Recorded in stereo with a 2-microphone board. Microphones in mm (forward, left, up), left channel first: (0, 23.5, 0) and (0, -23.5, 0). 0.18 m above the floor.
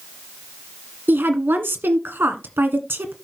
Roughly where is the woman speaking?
Right.